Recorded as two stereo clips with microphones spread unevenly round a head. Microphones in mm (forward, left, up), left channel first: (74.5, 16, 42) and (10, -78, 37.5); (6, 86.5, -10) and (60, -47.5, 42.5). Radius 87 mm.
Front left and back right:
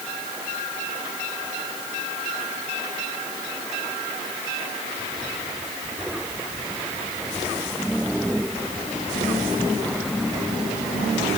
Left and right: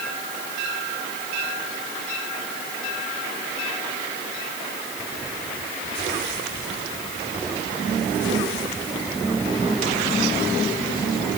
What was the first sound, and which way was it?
Only background noise.